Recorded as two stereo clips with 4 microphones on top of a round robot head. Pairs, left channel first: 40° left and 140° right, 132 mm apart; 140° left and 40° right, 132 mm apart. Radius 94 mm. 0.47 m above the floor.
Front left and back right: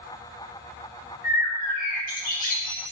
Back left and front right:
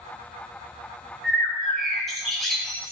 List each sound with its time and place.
1.2 s a bird: 55° left, 3.5 m